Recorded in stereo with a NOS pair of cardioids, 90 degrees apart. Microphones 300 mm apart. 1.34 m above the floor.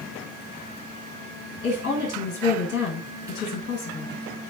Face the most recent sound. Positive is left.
turn(degrees=50)